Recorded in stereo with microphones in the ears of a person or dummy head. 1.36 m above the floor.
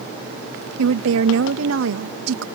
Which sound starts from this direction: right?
A woman speaking, at 0.8 s.